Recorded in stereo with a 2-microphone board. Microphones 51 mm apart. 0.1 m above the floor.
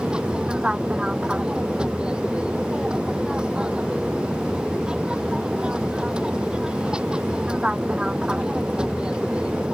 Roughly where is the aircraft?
Centre.